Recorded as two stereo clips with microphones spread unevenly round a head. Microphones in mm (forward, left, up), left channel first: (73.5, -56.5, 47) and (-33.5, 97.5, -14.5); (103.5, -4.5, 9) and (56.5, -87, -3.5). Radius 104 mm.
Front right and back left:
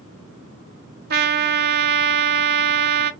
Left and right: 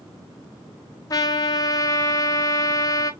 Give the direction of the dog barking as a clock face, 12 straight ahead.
No dog barking in this recording.